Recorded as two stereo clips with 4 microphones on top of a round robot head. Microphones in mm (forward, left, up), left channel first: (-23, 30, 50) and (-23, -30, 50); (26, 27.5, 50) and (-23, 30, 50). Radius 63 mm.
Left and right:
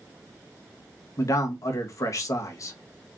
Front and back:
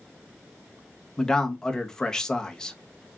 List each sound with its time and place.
1.2 s a man speaking: 70° left, 1.0 m